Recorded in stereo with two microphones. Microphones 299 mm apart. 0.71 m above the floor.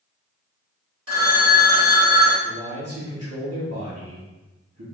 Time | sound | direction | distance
1.1 | a phone ringing | 55° right (ahead or behind) | 0.8 m
2.4 | a man speaking | 60° right (ahead or behind) | 1.5 m